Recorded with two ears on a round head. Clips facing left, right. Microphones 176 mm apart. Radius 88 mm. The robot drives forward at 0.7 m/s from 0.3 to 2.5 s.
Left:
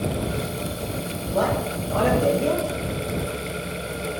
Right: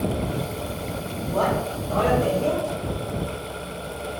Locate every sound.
1.3 s a man speaking: 15° left (ahead or behind), 1.6 m; by 2.7 s 30° left (ahead or behind), 0.9 m